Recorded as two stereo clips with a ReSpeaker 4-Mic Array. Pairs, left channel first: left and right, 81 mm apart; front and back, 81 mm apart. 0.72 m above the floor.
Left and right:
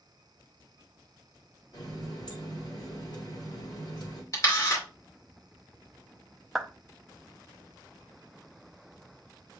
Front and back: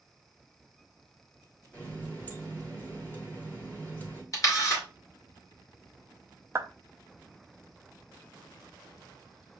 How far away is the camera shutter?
About 2 m.